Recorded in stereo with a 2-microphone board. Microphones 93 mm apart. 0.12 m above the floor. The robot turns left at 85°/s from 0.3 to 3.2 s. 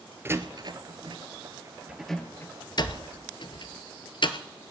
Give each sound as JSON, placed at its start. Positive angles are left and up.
{"t": 0.2, "sound": "a door slam", "side_deg": -25, "distance_m": 1.3}